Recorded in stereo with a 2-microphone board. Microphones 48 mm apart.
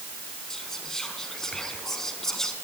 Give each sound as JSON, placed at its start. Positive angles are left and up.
{"t": 0.5, "sound": "whispering", "side_deg": 10, "distance_m": 4.0}